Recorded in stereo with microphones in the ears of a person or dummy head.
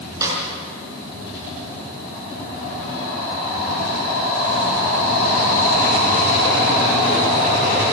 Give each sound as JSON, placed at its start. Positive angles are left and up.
{"t": 0.2, "sound": "a snare drum", "side_deg": -20, "distance_m": 7.0}